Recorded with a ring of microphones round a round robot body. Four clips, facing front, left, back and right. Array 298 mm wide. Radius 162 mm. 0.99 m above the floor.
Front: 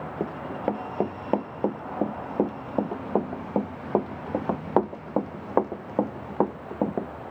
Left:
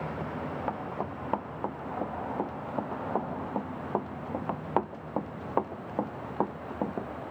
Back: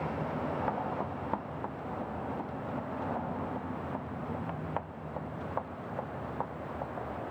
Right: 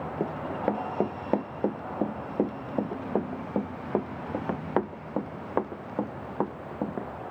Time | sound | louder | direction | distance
0.2 | running footsteps | right 8 dB, front 7 dB | 45° right | ?